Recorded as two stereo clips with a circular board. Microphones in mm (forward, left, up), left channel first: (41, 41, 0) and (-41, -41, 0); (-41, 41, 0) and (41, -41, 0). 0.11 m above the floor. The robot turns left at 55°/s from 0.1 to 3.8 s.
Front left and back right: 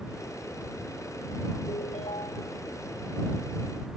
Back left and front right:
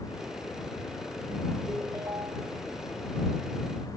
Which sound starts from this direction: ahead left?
A ringtone, at 1.7 s.